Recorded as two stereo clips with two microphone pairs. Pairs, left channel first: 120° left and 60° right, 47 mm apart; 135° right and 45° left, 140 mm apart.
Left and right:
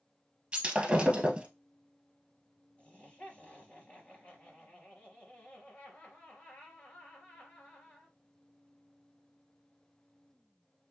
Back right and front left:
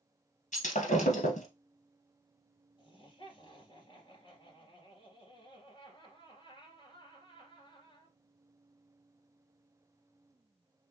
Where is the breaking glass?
130° right, 1.8 m.